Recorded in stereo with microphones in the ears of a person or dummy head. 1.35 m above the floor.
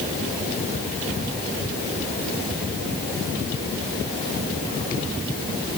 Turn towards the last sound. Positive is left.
No sound to turn to.